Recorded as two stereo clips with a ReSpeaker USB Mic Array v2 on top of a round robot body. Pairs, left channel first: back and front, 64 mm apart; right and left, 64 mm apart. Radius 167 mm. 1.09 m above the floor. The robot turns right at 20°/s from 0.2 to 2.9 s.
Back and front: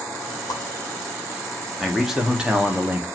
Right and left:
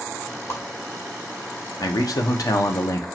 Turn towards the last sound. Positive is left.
turn(degrees=-65)